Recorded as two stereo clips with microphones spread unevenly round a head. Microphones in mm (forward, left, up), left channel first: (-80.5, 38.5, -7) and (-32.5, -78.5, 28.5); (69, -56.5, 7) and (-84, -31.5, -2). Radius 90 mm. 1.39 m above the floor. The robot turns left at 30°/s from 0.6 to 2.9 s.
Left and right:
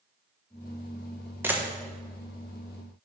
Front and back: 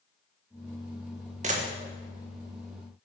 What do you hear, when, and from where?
1.4 s a camera shutter: 145° right, 1.4 m; by 1.6 s 150° right, 1.4 m